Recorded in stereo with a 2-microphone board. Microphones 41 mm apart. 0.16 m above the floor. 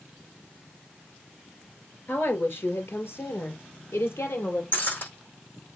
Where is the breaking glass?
45° left (ahead or behind), 5.5 m.